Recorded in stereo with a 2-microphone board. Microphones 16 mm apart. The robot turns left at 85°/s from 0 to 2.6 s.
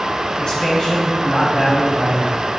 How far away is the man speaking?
About 2.5 m.